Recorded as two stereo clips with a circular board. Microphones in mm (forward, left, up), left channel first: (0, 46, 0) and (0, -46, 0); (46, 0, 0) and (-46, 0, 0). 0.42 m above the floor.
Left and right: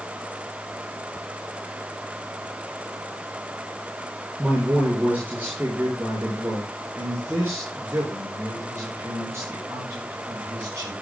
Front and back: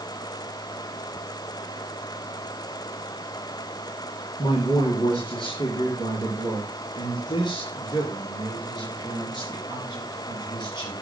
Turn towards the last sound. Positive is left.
turn(degrees=-35)